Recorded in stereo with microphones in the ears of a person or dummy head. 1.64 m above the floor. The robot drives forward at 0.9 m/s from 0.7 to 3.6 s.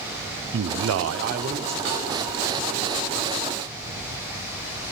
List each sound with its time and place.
0.5 s a man speaking: 65° right (ahead or behind), 0.5 m; by 1.8 s 30° right (ahead or behind), 0.9 m
1.9 s a snare drum: 70° right (ahead or behind), 6.5 m